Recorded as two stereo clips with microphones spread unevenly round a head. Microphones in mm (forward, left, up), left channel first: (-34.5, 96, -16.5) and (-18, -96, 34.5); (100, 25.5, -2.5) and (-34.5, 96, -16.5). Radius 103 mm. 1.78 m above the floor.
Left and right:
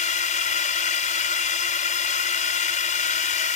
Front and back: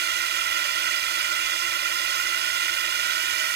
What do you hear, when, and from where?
0.0 s a drone: 150° left